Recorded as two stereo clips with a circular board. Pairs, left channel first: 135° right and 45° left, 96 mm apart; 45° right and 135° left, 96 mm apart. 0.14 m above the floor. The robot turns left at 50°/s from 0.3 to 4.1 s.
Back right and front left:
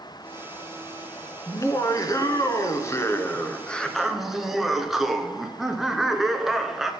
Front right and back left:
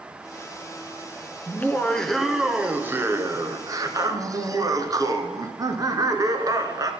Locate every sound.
1.5 s laughter: 95° right, 1.3 m; by 6.9 s 130° left, 1.3 m